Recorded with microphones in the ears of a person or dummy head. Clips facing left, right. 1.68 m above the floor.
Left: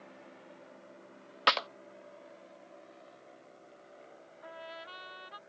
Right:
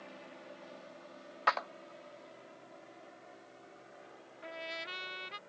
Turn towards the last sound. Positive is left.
turn(degrees=-30)  # may be behind; listen again after turning